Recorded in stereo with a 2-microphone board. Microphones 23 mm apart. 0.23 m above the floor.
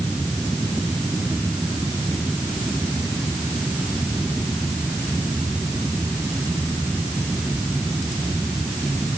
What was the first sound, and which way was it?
Only background noise.